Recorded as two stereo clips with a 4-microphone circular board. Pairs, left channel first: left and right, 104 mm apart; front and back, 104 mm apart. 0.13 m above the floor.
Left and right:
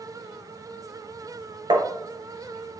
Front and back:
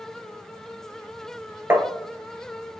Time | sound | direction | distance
1.7 | tapping | 115° right | 1.1 m